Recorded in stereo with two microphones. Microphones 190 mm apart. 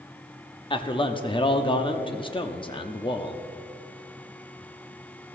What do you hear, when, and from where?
0.7 s a man speaking: 25° left (ahead or behind), 0.7 m